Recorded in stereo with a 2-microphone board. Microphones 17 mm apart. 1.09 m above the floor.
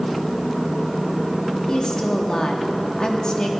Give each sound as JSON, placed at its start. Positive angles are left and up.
{"t": 1.7, "sound": "a woman speaking", "side_deg": 50, "distance_m": 1.9}